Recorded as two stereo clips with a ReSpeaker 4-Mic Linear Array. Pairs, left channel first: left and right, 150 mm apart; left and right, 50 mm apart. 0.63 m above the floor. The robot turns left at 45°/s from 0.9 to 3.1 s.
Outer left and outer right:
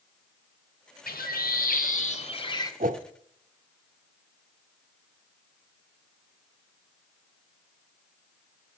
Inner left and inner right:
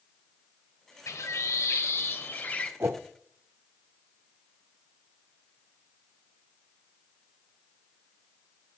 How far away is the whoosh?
About 0.6 m.